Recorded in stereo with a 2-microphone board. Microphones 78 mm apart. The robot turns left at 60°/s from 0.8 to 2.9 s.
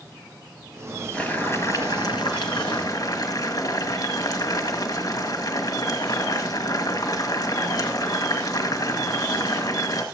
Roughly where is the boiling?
Behind.